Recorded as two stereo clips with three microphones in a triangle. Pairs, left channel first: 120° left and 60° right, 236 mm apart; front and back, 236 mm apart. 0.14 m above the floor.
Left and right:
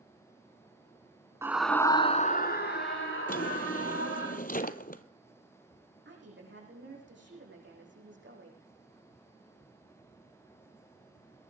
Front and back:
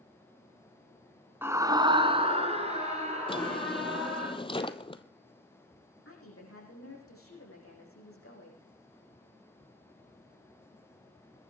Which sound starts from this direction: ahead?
A woman speaking, at 6.0 s.